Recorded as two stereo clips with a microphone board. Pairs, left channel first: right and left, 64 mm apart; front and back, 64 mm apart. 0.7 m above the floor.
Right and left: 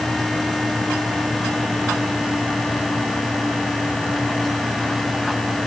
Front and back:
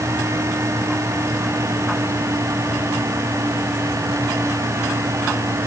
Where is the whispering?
No whispering in this recording.